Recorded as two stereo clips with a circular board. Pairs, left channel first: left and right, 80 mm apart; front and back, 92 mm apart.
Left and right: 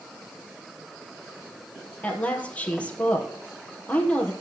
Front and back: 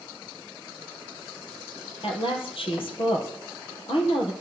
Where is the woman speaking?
15° left, 3.5 m.